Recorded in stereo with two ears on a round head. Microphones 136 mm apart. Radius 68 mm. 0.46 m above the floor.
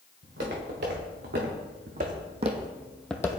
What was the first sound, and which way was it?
Footsteps, 80° right.